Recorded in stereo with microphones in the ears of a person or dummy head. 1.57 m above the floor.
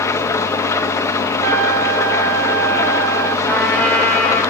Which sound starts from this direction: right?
A trumpet, at 1.4 s.